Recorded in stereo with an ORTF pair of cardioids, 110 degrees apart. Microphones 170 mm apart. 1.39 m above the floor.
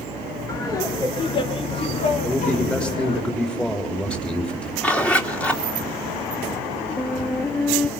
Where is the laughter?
20° left, 4 m; by 3.2 s 70° left, 2 m.